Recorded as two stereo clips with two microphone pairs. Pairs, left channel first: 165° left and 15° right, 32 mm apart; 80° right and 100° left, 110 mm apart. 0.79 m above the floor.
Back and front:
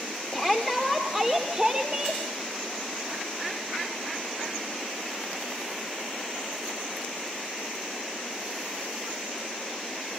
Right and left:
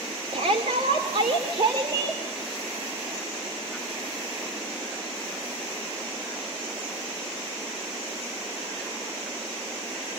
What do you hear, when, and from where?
0.3 s a shout: 85° left, 2.5 m; by 2.2 s 45° left, 3.5 m